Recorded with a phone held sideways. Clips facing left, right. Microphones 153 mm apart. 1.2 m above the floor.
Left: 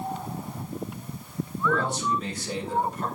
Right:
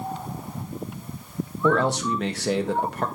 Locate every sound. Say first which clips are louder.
1.6 s a man speaking: right 5 dB; 75° right (ahead or behind), 2.0 m